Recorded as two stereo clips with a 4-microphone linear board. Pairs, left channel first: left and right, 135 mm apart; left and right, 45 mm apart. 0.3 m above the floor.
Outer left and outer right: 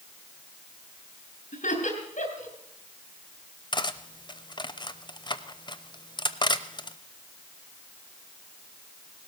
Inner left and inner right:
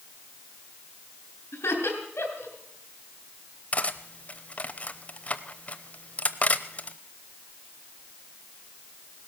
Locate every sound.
1.5 s laughter: 65° left (ahead or behind), 4 m
3.7 s cutlery clinking: 35° left (ahead or behind), 0.7 m